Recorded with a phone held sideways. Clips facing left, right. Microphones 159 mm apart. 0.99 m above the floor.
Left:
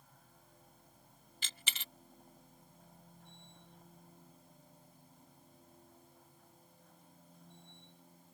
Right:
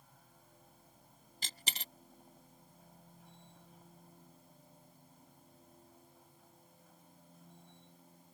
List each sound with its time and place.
0.0 s a machine running: 5° right (ahead or behind)
1.4 s a dropped coin: 40° right (ahead or behind)